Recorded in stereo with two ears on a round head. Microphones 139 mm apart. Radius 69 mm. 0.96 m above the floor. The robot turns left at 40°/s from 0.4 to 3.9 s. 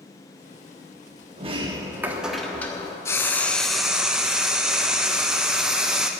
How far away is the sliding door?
About 1.3 m.